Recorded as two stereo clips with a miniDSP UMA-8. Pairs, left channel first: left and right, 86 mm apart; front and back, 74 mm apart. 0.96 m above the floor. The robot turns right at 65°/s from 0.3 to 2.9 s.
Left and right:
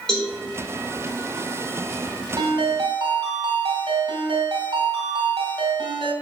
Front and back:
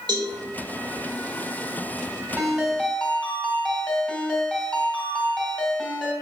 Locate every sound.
0.1 s a cowbell: 170° left, 4 m; by 0.3 s 175° left, 4 m
2.4 s a ringtone: 110° right, 2.5 m; by 6.1 s 75° right, 2.5 m